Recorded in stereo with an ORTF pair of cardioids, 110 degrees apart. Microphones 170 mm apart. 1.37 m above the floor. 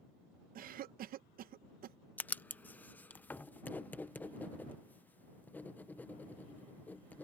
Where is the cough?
60° right.